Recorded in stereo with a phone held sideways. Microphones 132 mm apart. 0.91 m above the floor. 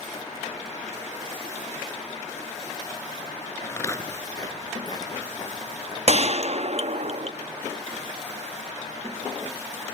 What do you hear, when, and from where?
3.6 s footsteps: 20° left (ahead or behind), 0.9 m; by 7.1 s 30° left (ahead or behind), 2.5 m
6.1 s a gunshot: 50° right (ahead or behind), 0.7 m